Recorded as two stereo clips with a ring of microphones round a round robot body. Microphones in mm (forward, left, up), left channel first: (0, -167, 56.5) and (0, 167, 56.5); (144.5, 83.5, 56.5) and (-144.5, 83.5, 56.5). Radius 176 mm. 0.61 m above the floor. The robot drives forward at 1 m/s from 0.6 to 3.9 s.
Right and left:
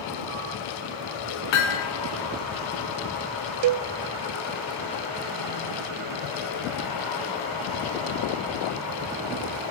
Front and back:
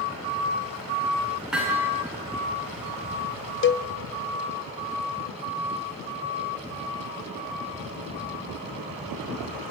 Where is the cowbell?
50° left, 0.6 m; by 3.9 s 80° left, 0.5 m.